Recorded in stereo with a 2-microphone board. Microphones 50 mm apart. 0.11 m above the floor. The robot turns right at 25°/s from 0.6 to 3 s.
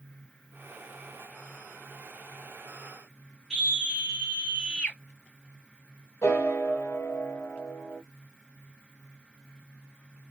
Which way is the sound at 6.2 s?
60° left (ahead or behind).